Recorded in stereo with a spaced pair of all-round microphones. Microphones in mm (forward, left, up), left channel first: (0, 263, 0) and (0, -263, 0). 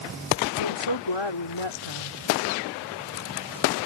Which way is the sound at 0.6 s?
55° left (ahead or behind).